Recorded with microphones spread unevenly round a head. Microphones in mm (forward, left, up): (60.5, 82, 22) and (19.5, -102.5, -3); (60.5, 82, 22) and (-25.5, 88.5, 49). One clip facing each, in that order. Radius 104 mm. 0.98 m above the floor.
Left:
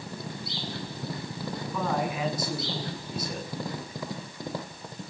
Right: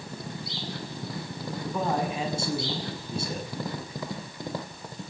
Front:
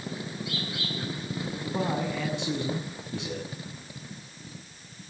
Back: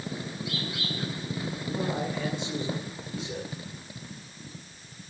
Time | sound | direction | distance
1.6 | a man speaking | 40° right | 8.5 m